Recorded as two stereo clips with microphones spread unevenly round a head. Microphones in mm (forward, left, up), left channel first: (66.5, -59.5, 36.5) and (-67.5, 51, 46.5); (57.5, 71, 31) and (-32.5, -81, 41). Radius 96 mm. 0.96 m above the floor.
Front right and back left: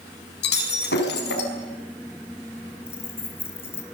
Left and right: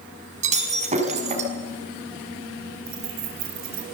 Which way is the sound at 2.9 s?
115° right.